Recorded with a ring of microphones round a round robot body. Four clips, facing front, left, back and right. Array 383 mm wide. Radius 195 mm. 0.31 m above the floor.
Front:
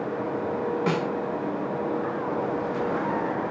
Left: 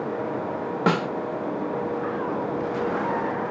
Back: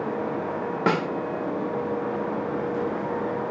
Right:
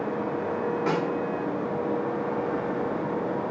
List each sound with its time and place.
0.9 s a snare drum: 125° left, 0.7 m